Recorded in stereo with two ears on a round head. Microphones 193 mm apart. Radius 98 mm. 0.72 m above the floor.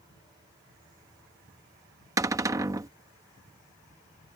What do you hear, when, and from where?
2.2 s a cupboard door: 15° right (ahead or behind)